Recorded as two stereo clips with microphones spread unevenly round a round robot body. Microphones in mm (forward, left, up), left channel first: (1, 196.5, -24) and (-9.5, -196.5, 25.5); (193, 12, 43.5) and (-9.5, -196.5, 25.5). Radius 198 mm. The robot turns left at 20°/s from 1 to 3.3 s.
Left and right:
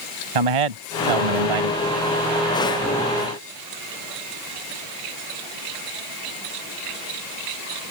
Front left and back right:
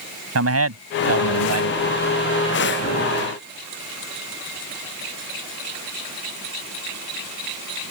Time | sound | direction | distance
0.3 | a man speaking | 100° right | ?